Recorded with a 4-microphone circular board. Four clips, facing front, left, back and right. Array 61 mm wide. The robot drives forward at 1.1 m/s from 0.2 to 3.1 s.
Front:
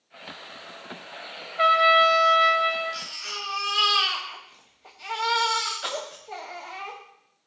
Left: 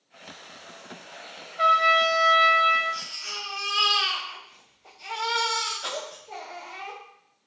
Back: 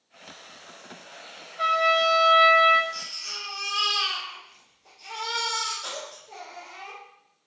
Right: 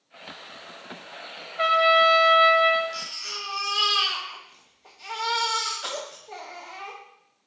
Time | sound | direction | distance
1.6 | a trumpet | 15° right | 0.9 m
2.9 | a baby crying | 5° right | 2.5 m